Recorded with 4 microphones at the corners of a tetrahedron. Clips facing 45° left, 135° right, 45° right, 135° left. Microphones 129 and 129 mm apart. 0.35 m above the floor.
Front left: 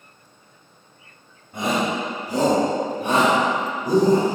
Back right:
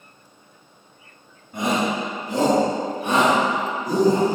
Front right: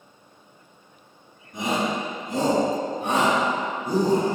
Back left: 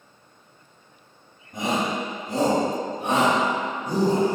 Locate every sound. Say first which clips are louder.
1.5 s a shout: even, even; 140° left, 1.6 m; by 4.3 s 25° left, 1.7 m